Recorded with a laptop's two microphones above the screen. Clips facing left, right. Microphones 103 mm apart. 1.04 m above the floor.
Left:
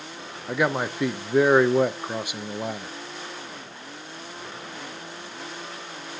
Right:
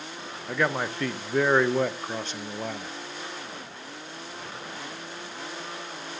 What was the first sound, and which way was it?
A man speaking, 10° left (ahead or behind).